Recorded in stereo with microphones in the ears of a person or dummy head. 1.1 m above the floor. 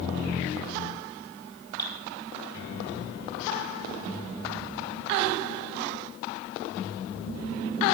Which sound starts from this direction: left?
Dripping, at 1.8 s.